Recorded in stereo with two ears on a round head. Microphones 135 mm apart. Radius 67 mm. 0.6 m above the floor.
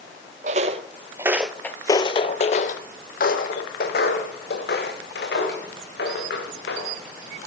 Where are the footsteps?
50° right (ahead or behind), 1.0 m; by 7.4 s 80° left, 4 m.